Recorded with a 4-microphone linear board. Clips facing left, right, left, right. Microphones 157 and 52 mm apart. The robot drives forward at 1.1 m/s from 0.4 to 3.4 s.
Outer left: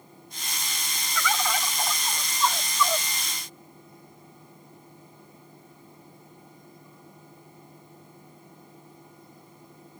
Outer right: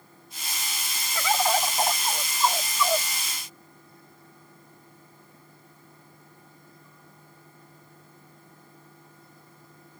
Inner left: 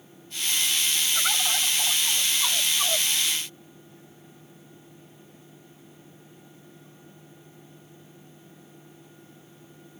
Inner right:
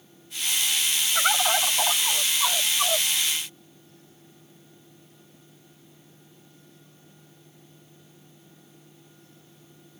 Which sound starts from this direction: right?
A bird, at 1.1 s.